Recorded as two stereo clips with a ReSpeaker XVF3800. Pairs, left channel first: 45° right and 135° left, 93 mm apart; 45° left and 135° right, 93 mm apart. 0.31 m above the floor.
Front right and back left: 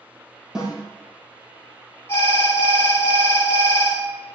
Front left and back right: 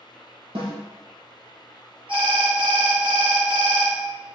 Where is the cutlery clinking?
No cutlery clinking in this recording.